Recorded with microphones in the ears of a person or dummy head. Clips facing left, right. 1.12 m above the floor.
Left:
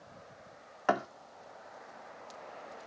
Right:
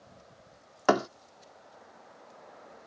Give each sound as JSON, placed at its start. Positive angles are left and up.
{"t": 0.9, "sound": "a thud", "side_deg": -50}